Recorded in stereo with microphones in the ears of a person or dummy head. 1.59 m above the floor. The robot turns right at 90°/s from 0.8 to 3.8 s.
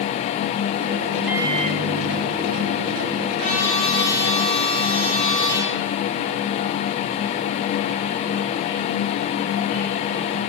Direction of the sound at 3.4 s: 150° right.